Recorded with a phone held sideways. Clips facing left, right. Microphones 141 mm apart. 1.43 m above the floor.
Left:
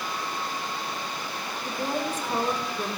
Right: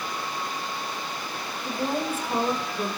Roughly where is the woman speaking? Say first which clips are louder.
Right 2 dB; centre.